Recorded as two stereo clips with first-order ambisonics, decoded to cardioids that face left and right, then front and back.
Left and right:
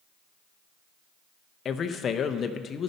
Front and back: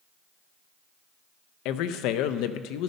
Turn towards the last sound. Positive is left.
turn(degrees=25)